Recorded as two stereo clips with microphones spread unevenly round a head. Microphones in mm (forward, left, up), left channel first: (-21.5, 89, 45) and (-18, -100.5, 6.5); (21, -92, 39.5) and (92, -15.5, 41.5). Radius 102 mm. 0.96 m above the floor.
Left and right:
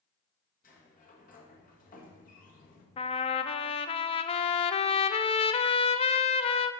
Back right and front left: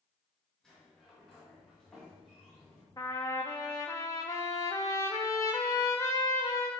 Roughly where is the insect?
I don't hear an insect.